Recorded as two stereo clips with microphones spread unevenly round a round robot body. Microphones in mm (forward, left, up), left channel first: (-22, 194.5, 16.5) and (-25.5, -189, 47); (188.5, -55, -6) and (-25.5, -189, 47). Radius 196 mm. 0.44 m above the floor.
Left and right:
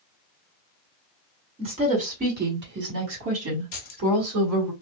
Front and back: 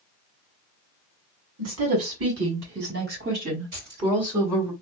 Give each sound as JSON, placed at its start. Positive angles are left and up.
{"t": 1.6, "sound": "a woman speaking", "azimuth_deg": -165, "distance_m": 1.9}
{"t": 3.7, "sound": "keys jangling", "azimuth_deg": 145, "distance_m": 1.4}